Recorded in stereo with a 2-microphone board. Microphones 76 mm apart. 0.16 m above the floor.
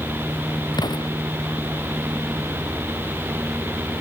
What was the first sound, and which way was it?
An explosion, 70° left (ahead or behind).